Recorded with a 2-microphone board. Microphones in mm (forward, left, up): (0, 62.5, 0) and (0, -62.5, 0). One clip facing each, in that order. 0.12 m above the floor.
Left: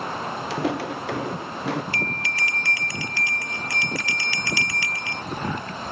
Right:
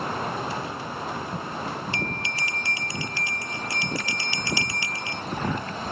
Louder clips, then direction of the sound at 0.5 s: Left 6 dB; 85° left.